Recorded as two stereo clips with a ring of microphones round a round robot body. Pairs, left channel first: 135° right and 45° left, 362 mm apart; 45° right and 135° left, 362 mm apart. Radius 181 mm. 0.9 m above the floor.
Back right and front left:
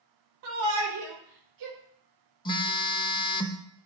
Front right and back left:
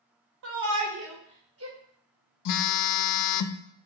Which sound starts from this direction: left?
A shout, at 0.4 s.